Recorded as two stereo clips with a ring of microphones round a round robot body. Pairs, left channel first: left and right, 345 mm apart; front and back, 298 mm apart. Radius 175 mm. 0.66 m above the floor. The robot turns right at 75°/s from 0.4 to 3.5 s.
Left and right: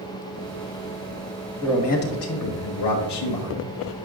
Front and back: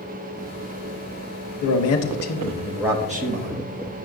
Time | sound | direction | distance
1.6 | a man speaking | 5° left | 1.0 m